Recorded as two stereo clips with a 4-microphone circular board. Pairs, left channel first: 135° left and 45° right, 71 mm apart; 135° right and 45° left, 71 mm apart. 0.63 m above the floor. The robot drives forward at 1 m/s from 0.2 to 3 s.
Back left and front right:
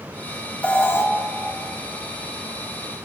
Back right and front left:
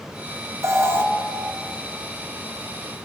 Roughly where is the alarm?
Left.